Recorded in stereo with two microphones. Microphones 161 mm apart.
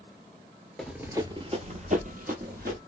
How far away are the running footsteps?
About 0.6 m.